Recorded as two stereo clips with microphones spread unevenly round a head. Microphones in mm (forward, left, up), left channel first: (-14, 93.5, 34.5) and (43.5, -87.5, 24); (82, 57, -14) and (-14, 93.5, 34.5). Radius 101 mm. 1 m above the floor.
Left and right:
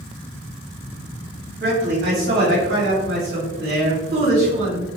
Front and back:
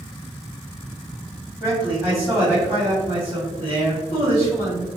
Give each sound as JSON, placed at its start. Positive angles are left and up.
{"t": 1.6, "sound": "a man speaking", "azimuth_deg": -110, "distance_m": 1.5}